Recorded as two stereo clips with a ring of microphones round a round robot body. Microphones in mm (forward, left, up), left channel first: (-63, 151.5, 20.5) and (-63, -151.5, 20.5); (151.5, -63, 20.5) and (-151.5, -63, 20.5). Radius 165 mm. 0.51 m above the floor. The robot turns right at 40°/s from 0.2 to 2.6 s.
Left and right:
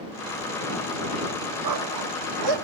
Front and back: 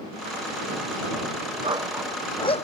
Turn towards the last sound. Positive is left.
turn(degrees=-70)